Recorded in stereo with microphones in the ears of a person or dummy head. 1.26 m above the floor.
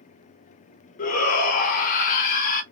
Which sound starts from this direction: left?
A shout, at 1.0 s.